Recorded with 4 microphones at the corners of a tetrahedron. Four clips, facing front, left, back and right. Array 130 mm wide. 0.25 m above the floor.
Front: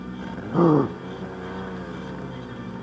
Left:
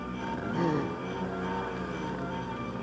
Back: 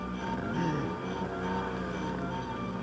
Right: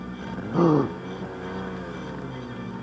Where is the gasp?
25° right.